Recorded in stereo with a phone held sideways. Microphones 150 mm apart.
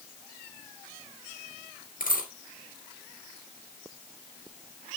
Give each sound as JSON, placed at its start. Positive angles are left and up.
{"t": 2.0, "sound": "a dropped coin", "side_deg": 70, "distance_m": 3.0}